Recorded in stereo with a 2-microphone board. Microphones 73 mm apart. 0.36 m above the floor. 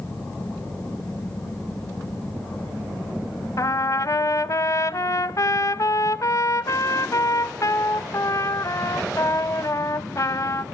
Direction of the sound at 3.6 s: 50° left (ahead or behind).